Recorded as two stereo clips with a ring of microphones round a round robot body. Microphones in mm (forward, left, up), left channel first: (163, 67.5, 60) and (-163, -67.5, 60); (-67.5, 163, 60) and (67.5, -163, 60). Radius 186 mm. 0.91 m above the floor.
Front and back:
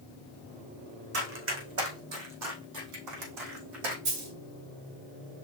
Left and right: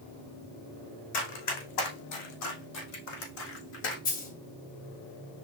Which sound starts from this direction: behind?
A dropped coin, at 4.0 s.